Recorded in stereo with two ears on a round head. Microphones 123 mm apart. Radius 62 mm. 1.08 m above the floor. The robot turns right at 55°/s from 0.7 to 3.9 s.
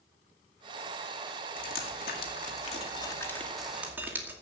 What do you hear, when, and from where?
1.6 s dripping: 65° left (ahead or behind), 2.5 m; by 4.3 s 15° right (ahead or behind), 2.5 m